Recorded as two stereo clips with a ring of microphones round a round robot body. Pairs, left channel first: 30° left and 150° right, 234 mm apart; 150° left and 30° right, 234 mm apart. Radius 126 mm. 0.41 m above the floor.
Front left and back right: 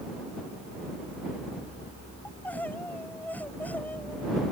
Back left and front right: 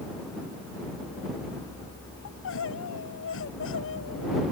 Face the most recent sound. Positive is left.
turn(degrees=115)